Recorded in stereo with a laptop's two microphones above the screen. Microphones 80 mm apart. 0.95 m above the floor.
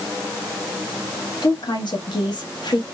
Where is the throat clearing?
I don't hear throat clearing.